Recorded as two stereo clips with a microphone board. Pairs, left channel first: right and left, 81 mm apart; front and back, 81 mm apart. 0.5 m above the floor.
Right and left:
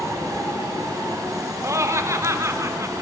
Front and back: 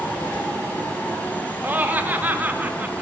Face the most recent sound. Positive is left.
turn(degrees=120)